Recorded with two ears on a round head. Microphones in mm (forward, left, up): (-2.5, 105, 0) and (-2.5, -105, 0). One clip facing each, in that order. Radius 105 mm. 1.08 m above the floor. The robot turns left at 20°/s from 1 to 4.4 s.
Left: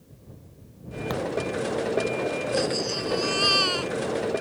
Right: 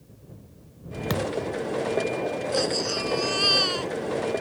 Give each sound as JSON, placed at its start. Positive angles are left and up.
{"t": 1.1, "sound": "a thud", "side_deg": -40}
{"t": 2.5, "sound": "a baby crying", "side_deg": -15}